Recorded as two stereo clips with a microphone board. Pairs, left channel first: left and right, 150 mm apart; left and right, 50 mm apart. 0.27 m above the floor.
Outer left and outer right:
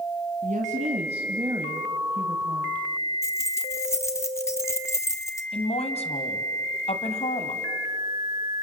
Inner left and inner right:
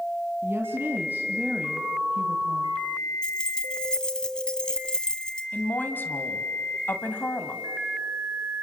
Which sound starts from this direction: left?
A woman speaking, at 5.5 s.